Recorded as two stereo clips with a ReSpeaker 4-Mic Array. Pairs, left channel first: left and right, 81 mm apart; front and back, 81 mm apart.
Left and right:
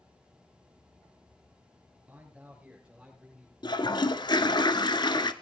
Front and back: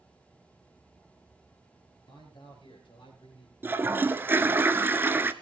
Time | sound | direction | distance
2.1 | a man speaking | 20° right | 5 m
3.6 | a toilet flushing | 115° left | 0.8 m